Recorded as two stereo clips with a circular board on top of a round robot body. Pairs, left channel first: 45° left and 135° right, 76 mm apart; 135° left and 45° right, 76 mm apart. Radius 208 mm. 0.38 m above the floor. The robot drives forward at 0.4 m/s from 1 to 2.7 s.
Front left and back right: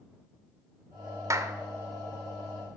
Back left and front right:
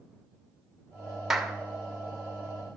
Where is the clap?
125° right, 1.3 m; by 1.5 s 130° right, 1.3 m.